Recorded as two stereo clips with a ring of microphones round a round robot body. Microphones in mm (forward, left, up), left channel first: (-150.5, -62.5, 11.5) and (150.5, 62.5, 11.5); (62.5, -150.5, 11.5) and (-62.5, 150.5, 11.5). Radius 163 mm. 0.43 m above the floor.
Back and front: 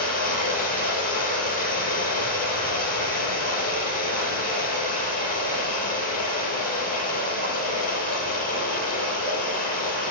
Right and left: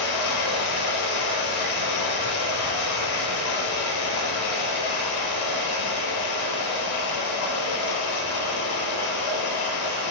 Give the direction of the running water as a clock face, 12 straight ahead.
3 o'clock.